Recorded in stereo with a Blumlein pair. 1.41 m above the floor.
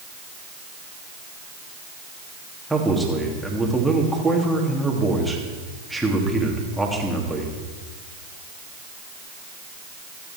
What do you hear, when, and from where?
2.7 s a man speaking: straight ahead, 3 m